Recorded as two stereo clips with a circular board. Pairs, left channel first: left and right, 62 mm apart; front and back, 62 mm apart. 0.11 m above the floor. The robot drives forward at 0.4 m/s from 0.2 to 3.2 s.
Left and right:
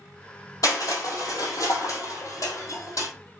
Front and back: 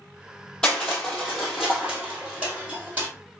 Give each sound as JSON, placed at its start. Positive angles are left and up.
{"t": 0.6, "sound": "crushing", "azimuth_deg": 80, "distance_m": 1.7}